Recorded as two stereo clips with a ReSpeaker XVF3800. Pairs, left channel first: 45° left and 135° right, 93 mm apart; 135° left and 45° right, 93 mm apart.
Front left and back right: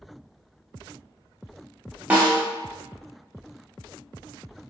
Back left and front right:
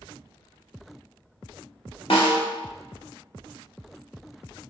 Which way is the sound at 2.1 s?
150° left.